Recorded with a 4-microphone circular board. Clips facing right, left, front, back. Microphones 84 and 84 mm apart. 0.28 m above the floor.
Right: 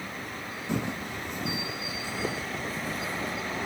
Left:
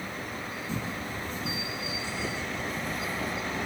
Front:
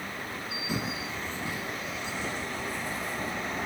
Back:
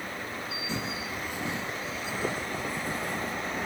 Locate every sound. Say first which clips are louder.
0.7 s footsteps: right 5 dB, front 2 dB; 80° right, 0.9 m; by 3.3 s 155° right, 1.6 m